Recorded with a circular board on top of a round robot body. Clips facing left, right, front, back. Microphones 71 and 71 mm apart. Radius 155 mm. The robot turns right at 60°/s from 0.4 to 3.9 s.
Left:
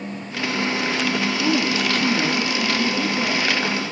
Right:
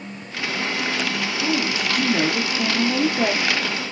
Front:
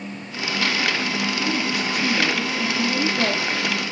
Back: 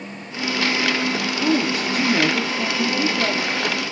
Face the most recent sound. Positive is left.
turn(degrees=-50)